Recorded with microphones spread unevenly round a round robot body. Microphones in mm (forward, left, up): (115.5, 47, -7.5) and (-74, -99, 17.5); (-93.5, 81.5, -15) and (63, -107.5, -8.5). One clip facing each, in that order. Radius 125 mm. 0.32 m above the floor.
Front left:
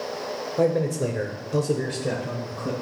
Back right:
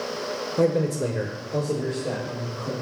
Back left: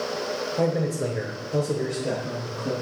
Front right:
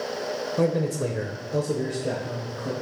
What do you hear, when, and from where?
0.6 s a man speaking: 85° right, 0.9 m; by 2.7 s 50° left, 1.3 m